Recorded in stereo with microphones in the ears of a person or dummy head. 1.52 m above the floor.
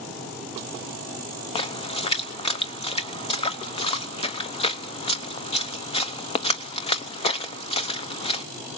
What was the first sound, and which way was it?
A splash, 35° left (ahead or behind).